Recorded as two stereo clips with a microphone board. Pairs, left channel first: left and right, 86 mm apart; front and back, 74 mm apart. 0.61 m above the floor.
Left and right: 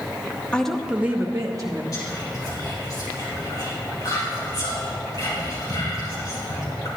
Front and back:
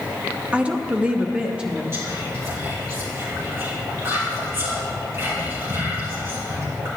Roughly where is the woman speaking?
Behind left.